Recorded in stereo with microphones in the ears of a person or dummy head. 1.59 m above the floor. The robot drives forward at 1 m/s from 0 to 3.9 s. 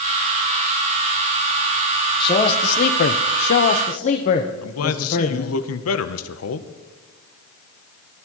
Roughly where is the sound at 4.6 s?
Left.